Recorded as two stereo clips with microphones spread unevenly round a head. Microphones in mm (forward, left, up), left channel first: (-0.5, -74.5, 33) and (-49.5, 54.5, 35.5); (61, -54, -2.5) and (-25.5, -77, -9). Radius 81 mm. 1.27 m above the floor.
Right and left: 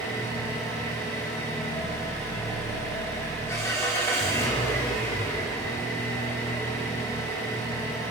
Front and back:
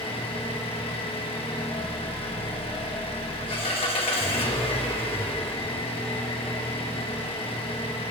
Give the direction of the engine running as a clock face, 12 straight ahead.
12 o'clock.